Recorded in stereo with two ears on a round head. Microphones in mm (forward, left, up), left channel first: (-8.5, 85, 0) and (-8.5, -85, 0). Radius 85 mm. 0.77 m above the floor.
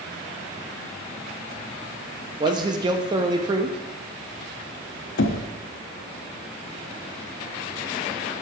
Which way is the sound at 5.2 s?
65° left (ahead or behind).